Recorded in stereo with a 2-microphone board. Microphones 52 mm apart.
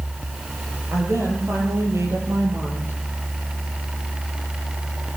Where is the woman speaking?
60° right (ahead or behind), 10 m; by 3.0 s 70° right (ahead or behind), 10 m.